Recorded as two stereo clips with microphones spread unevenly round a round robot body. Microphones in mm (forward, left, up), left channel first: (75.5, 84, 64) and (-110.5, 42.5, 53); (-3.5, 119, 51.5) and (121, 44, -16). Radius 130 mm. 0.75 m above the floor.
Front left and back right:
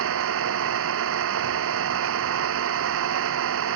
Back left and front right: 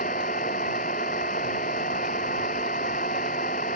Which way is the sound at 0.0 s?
150° right.